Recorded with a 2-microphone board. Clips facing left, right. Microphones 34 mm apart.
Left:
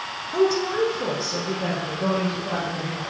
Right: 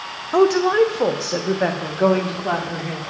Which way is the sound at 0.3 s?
60° right (ahead or behind).